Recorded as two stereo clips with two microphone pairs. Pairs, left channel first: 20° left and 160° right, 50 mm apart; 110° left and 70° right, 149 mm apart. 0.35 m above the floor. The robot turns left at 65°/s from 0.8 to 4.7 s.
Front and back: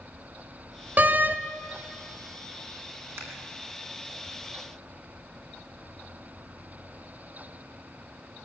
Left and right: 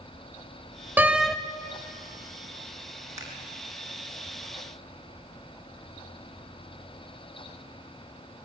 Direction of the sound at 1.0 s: 140° right.